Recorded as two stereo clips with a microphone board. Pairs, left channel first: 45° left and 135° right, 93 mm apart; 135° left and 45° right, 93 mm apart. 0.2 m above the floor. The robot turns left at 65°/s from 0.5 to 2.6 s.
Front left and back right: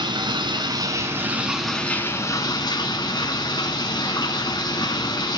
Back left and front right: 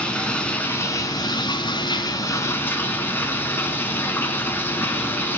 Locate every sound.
0.0 s running water: 150° right, 1.5 m; by 5.4 s 75° left, 1.5 m